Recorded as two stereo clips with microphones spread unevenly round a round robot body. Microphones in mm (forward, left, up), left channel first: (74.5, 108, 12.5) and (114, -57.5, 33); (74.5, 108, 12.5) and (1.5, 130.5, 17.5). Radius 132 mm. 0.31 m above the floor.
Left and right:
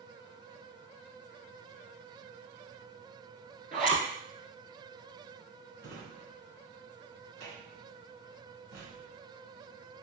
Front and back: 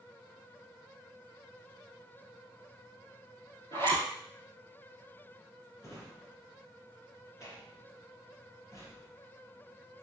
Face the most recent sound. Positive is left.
turn(degrees=-115)